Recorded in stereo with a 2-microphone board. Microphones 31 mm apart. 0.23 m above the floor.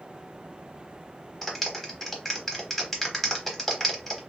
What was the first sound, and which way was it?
A clap, 5° left (ahead or behind).